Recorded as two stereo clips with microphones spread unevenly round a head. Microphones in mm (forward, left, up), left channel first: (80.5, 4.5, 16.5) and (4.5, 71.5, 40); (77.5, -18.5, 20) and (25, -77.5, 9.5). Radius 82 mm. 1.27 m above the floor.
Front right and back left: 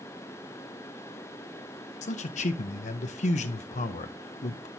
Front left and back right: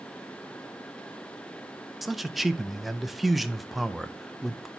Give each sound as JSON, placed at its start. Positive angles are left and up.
{"t": 2.0, "sound": "a man speaking", "azimuth_deg": -40, "distance_m": 0.5}